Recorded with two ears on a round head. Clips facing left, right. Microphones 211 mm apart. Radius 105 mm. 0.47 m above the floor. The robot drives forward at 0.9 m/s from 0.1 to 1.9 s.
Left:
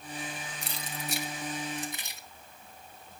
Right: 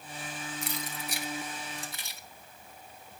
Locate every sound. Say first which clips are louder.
0.6 s keys jangling: right 2 dB; 30° left (ahead or behind), 1.7 m; by 2.2 s 15° left (ahead or behind), 2.5 m